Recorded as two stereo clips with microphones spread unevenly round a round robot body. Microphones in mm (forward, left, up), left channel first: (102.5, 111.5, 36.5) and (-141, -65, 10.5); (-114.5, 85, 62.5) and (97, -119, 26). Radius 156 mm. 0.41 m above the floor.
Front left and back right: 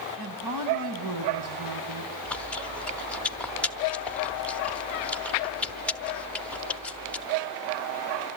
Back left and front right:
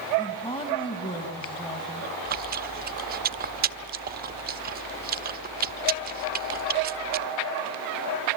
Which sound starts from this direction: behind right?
A woman speaking, at 0.2 s.